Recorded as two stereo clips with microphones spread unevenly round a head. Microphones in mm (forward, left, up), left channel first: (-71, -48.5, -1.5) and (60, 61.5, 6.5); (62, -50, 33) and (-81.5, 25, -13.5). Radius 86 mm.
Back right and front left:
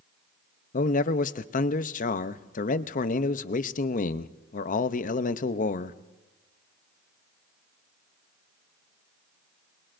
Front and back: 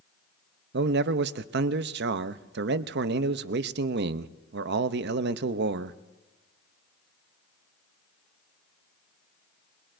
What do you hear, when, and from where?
0.7 s a man speaking: 175° left, 0.6 m